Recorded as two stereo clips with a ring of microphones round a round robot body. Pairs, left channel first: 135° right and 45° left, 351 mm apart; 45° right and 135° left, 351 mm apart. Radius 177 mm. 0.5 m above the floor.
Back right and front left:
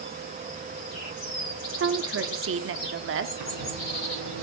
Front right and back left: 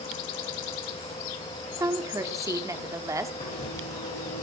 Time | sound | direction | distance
1.8 | a woman speaking | 60° left | 1.1 m
3.4 | writing | 25° left | 8.5 m